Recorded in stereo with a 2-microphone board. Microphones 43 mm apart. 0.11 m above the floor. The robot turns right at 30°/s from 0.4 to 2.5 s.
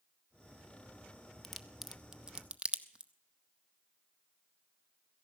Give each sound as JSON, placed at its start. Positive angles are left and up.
{"t": 1.4, "sound": "a crack", "side_deg": 5, "distance_m": 0.6}